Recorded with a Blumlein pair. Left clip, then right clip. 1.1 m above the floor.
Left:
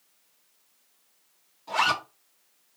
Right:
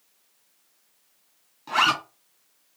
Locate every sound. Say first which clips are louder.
1.7 s a zipper: right 3 dB; 25° right, 2 m